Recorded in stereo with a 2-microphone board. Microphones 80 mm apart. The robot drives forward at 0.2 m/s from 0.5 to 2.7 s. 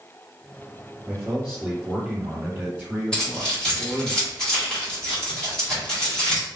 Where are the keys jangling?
10° left (ahead or behind), 1.4 m.